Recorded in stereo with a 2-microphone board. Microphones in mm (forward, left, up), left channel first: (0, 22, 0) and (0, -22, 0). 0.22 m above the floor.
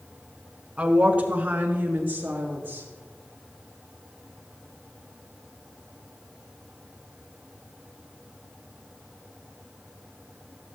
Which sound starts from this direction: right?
A woman speaking, at 0.8 s.